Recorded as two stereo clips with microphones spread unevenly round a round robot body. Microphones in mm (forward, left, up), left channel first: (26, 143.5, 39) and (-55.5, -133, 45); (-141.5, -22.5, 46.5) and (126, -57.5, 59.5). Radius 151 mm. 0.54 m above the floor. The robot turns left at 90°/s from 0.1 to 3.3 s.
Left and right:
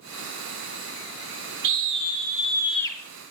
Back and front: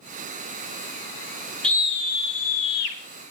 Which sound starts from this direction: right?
A scream, at 1.6 s.